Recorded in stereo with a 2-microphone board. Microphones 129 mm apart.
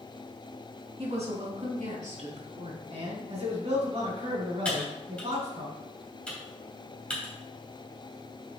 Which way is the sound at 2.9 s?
50° right (ahead or behind).